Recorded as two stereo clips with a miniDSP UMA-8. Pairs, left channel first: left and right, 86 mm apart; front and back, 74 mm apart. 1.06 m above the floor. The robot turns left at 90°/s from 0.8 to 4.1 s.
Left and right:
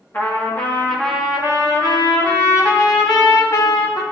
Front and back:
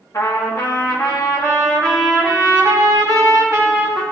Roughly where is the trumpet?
Ahead left.